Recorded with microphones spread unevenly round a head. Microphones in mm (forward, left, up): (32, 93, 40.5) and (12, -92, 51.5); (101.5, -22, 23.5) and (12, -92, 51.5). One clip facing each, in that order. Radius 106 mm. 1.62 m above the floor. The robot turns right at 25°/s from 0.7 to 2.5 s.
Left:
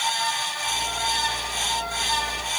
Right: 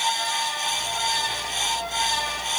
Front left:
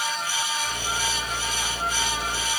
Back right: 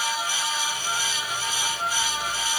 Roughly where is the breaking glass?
I don't hear breaking glass.